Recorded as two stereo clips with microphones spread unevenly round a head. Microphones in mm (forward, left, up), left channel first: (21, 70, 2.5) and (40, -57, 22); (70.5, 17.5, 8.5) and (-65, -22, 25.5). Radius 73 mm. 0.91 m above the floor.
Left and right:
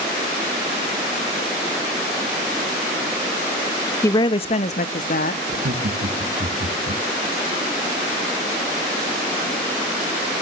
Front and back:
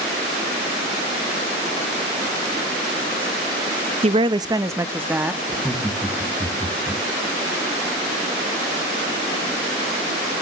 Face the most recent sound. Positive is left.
turn(degrees=-70)